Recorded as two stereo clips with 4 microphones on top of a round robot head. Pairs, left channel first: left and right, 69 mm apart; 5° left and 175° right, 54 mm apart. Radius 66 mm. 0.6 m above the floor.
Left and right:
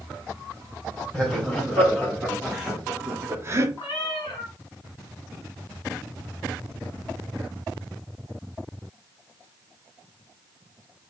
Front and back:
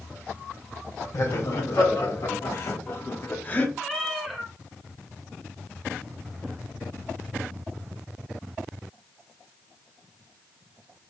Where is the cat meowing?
95° left, 0.9 m.